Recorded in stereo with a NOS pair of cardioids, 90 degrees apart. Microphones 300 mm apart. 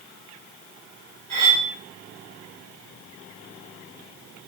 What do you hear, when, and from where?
1.3 s cutlery clinking: 60° right, 1.1 m